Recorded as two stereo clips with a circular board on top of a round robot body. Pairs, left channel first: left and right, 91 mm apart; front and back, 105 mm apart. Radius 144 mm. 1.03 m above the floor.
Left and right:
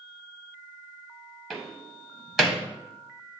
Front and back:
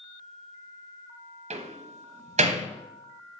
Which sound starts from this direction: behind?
A door slam, at 1.5 s.